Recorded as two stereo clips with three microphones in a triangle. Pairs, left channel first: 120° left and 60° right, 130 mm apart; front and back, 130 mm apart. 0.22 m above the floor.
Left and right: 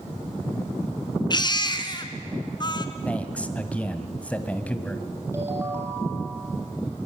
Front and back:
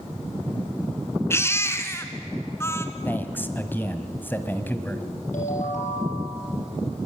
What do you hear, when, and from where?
1.3 s a baby crying: 70° left, 1.8 m
3.0 s a man speaking: 55° left, 1.7 m
5.3 s a ringtone: 10° left, 6 m